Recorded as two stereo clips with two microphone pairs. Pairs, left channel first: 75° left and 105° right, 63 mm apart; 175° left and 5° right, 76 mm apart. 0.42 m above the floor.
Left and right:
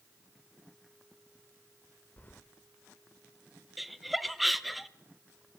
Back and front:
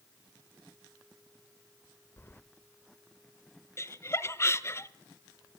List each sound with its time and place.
2.2 s keys jangling: 125° left, 0.9 m
3.8 s laughter: 165° left, 1.1 m